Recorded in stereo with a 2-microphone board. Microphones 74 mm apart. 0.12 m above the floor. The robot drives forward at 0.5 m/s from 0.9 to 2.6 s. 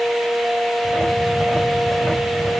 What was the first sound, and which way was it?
Only background noise.